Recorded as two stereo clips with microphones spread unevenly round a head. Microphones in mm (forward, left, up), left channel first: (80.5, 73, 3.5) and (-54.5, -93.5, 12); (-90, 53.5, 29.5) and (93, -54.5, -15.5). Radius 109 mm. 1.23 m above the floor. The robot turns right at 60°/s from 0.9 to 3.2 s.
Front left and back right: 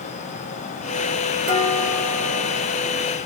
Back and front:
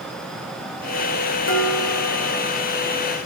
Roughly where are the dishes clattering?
Behind.